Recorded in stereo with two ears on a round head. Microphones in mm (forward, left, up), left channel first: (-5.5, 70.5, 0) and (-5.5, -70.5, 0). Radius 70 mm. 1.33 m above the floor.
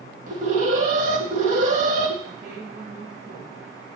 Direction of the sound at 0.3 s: 50° right (ahead or behind).